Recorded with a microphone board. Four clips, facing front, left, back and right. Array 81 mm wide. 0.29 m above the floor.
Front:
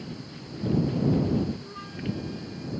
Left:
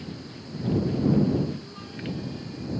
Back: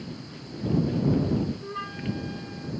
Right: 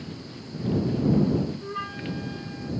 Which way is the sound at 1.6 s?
120° right.